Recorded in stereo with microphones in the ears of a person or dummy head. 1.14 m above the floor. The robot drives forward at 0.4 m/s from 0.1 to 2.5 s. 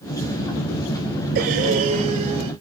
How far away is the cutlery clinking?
I don't hear cutlery clinking.